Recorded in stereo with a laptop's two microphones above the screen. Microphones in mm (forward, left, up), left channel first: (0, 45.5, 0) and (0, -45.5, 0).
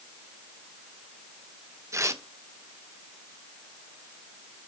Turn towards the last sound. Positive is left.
turn(degrees=-35)  # may be behind; listen again after turning